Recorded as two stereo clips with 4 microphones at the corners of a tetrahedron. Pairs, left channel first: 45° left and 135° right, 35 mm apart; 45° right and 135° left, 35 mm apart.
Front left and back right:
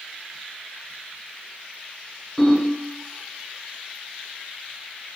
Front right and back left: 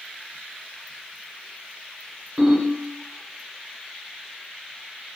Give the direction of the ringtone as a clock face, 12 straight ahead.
7 o'clock.